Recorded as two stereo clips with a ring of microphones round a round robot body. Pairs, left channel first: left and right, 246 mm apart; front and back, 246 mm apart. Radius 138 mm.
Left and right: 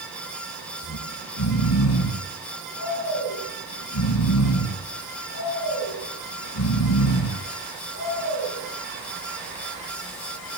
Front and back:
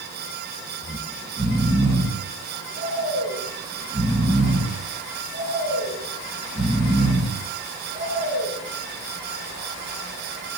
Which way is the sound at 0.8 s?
110° left.